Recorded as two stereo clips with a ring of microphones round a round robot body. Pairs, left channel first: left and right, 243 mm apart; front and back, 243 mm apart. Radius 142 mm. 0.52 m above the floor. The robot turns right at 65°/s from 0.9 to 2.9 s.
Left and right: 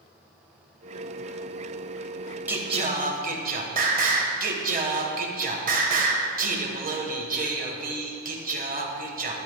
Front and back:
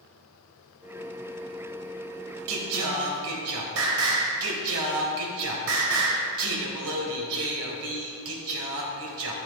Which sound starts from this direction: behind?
Singing, at 2.5 s.